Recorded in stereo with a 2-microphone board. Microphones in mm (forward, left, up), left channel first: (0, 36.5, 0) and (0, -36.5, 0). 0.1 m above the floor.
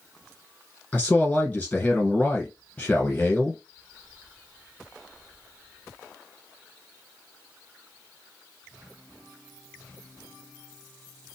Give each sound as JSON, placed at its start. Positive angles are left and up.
{"t": 0.9, "sound": "a man speaking", "side_deg": 15, "distance_m": 1.2}